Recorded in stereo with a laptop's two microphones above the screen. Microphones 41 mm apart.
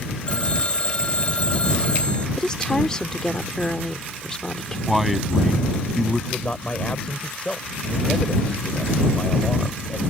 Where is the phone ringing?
30° left (ahead or behind).